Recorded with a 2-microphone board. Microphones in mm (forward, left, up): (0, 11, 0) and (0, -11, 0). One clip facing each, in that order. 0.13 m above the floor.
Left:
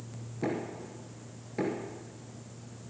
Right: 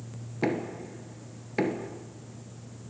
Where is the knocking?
55° right (ahead or behind), 1.4 m.